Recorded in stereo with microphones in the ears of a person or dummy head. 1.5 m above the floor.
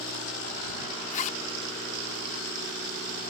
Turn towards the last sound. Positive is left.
turn(degrees=40)  # may be behind; listen again after turning